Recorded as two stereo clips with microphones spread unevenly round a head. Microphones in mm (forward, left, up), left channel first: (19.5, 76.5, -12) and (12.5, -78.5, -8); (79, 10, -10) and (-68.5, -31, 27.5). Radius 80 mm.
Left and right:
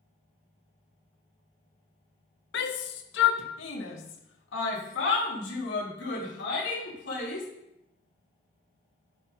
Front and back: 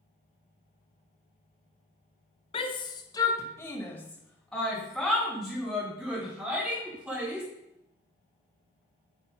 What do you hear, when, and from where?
2.5 s a shout: 75° left, 1.7 m; by 7.5 s 115° left, 5 m